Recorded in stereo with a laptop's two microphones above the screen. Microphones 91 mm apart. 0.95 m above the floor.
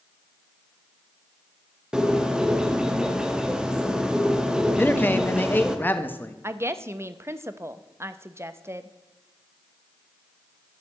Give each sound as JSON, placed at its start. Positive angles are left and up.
{"t": 1.9, "sound": "a bird", "side_deg": -10, "distance_m": 0.9}
{"t": 4.8, "sound": "a man speaking", "side_deg": 20, "distance_m": 1.2}
{"t": 6.4, "sound": "a woman speaking", "side_deg": -30, "distance_m": 0.9}